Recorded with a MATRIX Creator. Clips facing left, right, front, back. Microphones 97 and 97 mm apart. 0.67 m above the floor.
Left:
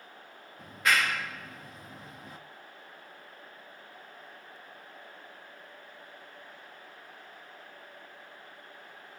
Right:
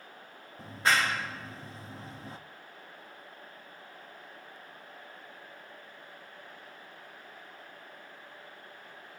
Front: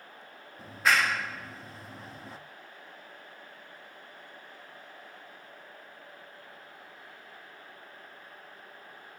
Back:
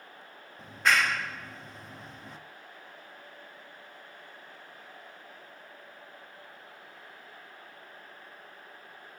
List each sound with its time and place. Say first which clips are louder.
0.6 s a clap: right 1 dB, even; 85° right, 0.9 m